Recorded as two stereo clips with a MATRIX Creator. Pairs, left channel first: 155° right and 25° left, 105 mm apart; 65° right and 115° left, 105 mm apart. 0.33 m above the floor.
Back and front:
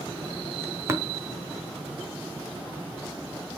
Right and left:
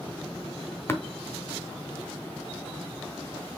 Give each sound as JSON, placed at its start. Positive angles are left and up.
{"t": 0.9, "sound": "tapping", "azimuth_deg": -20, "distance_m": 1.3}